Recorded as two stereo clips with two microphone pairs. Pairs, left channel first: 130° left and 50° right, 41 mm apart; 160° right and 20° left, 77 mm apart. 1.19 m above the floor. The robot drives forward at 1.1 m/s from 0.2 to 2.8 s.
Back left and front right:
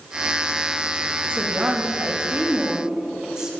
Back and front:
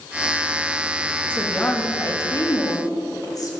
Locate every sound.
1.3 s a woman speaking: 85° right, 2 m; by 3.5 s 125° right, 2.5 m